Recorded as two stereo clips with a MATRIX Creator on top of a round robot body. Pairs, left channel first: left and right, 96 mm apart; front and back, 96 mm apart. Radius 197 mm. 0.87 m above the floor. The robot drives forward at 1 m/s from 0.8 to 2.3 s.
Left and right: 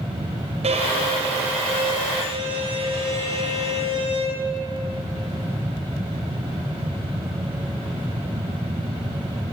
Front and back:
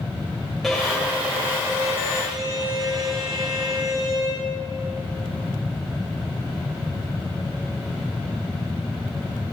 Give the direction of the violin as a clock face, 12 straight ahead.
3 o'clock.